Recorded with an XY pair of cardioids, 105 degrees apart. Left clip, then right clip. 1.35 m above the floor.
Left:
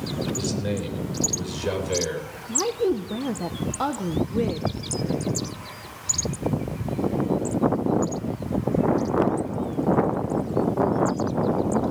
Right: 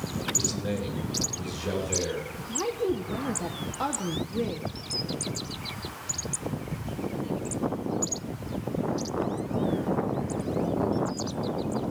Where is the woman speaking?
30° left, 1.0 m.